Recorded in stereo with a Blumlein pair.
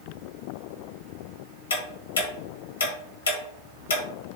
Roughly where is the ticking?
Left.